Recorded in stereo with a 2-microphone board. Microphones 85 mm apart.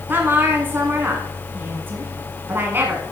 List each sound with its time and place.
0.1 s a woman speaking: 25° right (ahead or behind), 1.5 m